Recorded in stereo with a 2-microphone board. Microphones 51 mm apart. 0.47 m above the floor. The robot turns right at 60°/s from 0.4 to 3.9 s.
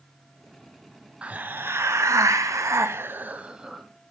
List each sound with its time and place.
1.2 s a hiss: 160° right, 0.8 m; by 3.8 s straight ahead, 0.8 m